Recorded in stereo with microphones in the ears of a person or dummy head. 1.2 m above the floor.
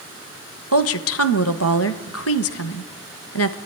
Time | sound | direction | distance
0.7 | a woman speaking | 70° left (ahead or behind) | 1.2 m